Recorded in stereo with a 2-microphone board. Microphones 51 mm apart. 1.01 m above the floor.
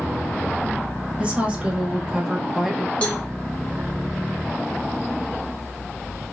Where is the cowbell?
20° left (ahead or behind), 0.9 m.